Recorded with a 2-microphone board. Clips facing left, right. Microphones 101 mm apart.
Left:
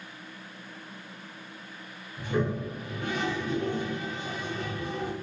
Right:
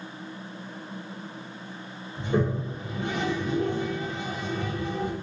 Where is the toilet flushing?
25° right (ahead or behind), 0.8 m.